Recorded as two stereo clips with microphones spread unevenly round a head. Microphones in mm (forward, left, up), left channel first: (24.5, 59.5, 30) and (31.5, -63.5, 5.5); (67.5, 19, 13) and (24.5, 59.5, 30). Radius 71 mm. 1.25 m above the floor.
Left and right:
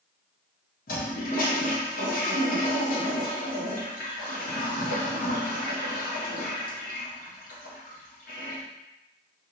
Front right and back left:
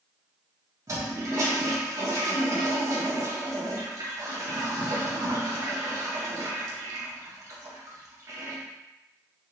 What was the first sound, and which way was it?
A toilet flushing, 105° left.